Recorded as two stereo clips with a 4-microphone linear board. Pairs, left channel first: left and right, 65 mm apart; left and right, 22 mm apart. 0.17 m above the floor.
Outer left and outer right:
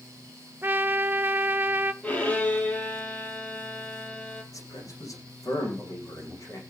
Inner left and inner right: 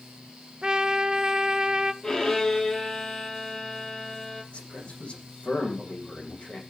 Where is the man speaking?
55° left (ahead or behind), 8 m.